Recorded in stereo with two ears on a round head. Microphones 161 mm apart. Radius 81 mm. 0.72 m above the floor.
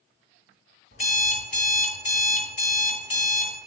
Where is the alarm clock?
40° left (ahead or behind), 1.3 m.